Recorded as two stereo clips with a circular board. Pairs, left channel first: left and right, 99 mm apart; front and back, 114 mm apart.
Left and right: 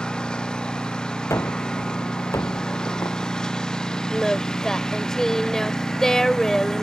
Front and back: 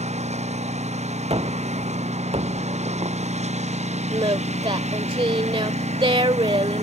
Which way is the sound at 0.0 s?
170° left.